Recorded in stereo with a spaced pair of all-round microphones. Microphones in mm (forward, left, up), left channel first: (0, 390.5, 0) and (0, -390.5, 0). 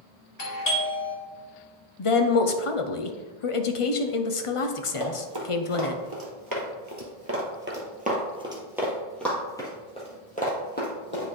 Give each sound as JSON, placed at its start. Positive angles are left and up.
{"t": 0.4, "sound": "a doorbell", "side_deg": 55, "distance_m": 1.8}
{"t": 2.0, "sound": "a woman speaking", "side_deg": 45, "distance_m": 0.7}
{"t": 5.0, "sound": "running footsteps", "side_deg": -35, "distance_m": 2.0}